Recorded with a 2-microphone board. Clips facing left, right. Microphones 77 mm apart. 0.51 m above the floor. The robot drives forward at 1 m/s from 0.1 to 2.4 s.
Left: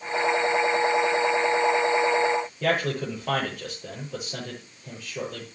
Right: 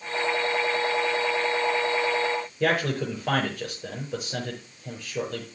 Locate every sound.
2.6 s a man speaking: 85° right, 7.5 m